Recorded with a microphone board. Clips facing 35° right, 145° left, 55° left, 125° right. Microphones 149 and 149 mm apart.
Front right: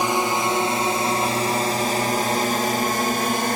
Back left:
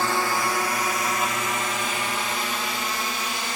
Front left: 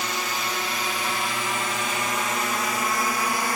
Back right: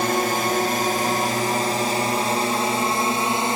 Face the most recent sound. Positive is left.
turn(degrees=-65)